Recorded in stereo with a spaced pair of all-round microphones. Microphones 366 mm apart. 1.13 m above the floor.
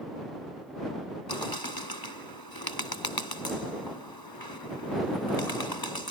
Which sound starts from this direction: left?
A bird, at 1.3 s.